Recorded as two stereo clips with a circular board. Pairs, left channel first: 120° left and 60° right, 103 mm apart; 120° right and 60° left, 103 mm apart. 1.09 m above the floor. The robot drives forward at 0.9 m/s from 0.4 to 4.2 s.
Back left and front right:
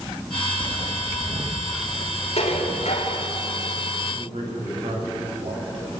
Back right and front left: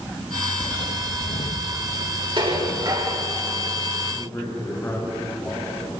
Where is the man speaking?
50° right, 7 m.